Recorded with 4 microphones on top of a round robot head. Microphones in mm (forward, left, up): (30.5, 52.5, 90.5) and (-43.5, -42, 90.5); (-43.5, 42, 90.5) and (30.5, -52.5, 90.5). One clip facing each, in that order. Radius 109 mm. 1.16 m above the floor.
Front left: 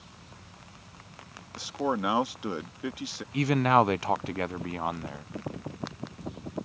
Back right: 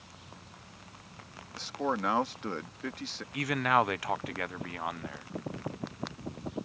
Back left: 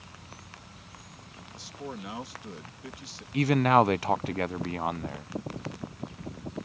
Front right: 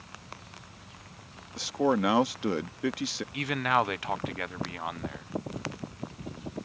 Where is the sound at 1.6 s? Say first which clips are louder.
Front left 3 dB, front right 14 dB; 25° right.